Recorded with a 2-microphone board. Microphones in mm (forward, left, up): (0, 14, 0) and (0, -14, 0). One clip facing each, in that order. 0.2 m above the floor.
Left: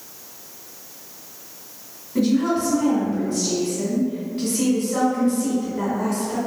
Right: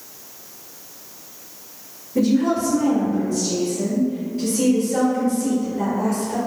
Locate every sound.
2.1 s a woman speaking: 35° left (ahead or behind), 1.8 m